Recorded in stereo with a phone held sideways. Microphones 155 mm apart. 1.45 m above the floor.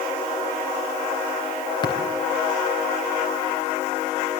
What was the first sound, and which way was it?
Tapping, 30° left (ahead or behind).